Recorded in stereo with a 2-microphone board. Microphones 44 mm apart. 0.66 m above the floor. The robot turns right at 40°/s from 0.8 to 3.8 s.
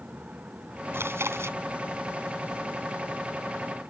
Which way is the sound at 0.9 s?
65° right (ahead or behind).